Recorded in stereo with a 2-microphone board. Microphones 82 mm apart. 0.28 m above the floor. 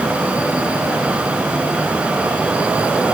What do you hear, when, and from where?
Only background noise.